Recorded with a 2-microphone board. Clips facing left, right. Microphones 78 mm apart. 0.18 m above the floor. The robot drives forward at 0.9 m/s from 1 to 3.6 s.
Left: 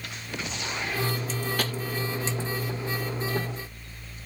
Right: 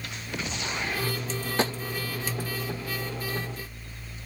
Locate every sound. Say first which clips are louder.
1.6 s tapping: right 8 dB; 25° right (ahead or behind)